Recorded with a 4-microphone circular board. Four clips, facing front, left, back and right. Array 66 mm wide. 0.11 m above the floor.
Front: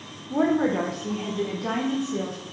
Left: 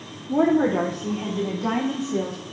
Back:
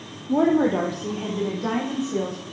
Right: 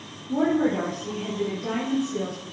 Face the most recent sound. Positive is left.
turn(degrees=140)